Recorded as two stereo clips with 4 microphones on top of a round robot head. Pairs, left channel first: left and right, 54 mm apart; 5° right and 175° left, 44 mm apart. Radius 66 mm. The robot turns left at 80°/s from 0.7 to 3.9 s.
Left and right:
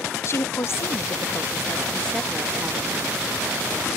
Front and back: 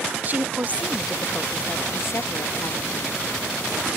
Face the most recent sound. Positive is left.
turn(degrees=-130)